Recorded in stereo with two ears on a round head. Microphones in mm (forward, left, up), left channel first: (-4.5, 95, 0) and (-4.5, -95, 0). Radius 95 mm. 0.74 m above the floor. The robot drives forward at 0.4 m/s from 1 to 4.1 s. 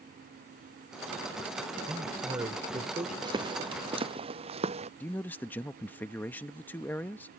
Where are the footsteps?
20° right (ahead or behind); by 4.9 s 30° right (ahead or behind).